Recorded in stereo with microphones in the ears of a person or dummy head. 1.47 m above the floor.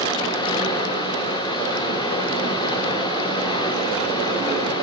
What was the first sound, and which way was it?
Running water, 25° left (ahead or behind).